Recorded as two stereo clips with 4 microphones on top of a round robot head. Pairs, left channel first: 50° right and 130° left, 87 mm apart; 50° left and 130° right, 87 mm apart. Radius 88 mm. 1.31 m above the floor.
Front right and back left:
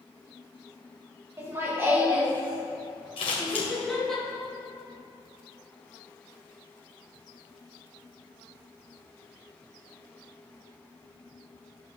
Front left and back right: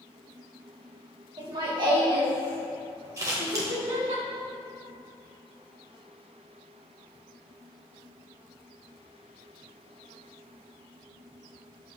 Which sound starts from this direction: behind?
Laughter, at 1.4 s.